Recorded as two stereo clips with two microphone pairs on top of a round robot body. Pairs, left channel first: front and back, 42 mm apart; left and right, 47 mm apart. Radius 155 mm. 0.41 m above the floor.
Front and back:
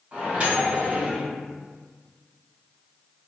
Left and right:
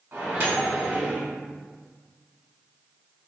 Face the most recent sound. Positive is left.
turn(degrees=-110)